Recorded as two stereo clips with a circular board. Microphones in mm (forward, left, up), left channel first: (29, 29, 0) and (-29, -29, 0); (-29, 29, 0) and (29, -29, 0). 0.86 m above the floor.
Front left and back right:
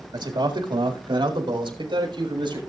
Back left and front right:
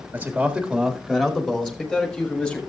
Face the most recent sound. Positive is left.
turn(degrees=-155)